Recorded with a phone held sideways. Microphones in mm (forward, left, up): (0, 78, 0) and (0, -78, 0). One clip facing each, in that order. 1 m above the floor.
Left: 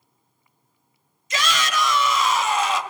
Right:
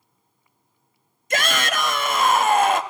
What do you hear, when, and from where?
1.3 s a shout: 50° right (ahead or behind), 1.4 m